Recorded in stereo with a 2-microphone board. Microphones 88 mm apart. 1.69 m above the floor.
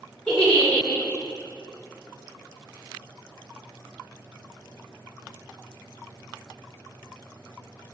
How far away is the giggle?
About 1.7 m.